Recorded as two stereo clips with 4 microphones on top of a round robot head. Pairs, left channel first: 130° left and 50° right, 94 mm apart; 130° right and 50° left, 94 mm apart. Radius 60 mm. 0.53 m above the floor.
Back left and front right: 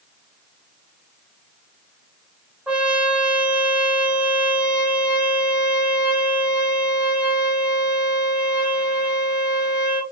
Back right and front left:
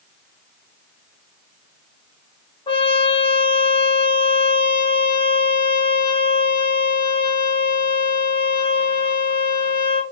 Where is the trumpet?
130° right, 1.4 m.